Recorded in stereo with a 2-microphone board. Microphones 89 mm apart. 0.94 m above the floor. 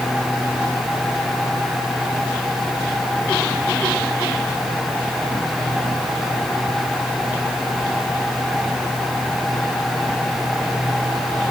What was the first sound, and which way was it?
Only background noise.